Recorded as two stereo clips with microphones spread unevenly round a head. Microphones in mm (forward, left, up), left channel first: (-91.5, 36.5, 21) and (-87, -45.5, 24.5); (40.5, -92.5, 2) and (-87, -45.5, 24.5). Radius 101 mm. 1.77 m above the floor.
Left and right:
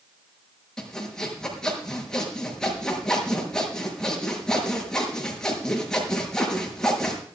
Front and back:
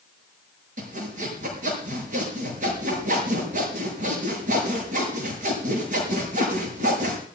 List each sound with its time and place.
0.8 s sawing: 175° left, 6.5 m